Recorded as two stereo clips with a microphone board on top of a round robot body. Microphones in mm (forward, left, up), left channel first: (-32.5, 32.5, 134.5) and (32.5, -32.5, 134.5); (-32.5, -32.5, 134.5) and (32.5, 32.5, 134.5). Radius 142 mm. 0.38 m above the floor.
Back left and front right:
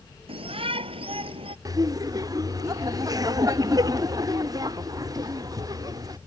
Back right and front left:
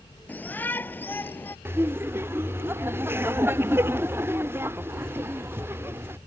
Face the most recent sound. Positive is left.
turn(degrees=-15)